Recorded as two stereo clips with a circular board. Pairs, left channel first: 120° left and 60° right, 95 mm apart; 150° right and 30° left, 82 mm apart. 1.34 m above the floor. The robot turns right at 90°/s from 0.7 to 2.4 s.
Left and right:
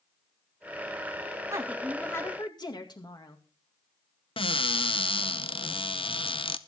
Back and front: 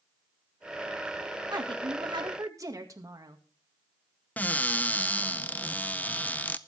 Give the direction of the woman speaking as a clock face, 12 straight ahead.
12 o'clock.